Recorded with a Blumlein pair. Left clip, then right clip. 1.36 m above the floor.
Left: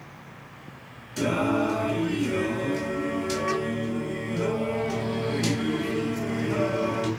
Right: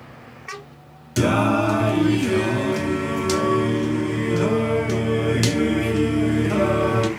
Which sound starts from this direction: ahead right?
Singing, at 1.2 s.